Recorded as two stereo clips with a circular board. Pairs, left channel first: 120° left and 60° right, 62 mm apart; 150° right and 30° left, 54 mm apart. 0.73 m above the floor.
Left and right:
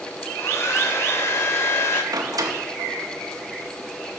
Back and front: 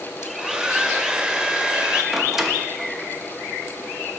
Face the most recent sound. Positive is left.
turn(degrees=-55)